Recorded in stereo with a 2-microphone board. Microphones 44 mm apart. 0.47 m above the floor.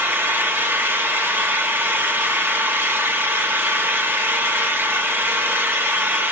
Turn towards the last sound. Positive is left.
turn(degrees=-65)  # may be behind; listen again after turning